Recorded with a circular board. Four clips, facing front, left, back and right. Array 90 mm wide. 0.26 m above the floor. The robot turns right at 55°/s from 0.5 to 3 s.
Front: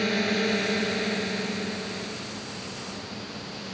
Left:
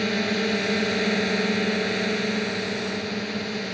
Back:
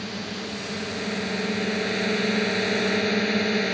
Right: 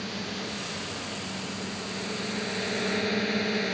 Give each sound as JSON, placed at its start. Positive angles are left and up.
{"t": 0.0, "sound": "a drone", "azimuth_deg": 50}